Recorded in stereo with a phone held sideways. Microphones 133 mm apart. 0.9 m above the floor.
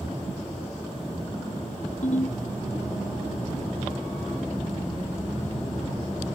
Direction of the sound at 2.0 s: 60° left (ahead or behind).